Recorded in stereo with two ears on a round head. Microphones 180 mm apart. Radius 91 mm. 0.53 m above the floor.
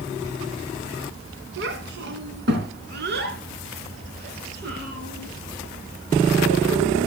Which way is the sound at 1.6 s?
65° right (ahead or behind).